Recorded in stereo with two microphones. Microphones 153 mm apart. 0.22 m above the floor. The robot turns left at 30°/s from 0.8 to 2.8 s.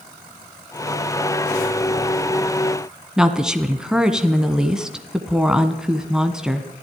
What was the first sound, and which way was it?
A woman speaking, 5° right (ahead or behind).